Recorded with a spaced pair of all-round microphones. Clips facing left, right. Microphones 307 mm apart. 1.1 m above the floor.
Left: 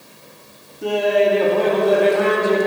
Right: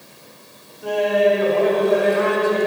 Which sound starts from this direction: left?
Laughter, at 0.8 s.